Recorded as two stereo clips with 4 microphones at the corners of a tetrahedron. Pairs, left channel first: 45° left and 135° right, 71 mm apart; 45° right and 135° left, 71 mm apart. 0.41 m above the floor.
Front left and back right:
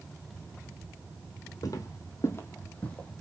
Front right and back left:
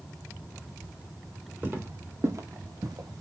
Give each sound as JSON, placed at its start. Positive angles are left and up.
{"t": 1.6, "sound": "footsteps", "azimuth_deg": 75, "distance_m": 1.1}